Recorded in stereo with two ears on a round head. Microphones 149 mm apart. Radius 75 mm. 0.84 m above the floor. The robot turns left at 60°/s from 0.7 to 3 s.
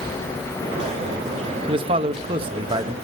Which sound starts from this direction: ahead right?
A man speaking, at 1.7 s.